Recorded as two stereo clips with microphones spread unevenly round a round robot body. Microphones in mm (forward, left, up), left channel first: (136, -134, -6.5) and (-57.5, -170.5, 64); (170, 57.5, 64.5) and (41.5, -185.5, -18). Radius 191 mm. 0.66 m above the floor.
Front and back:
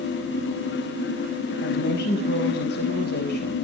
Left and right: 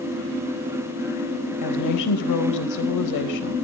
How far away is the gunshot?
I don't hear a gunshot.